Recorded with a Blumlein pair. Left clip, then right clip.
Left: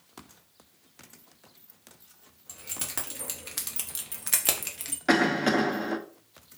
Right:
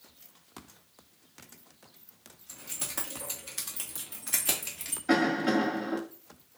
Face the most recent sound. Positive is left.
turn(degrees=50)